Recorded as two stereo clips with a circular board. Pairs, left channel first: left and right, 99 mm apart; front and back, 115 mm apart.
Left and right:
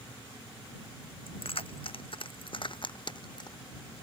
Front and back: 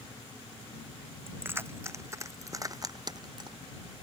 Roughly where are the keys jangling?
Left.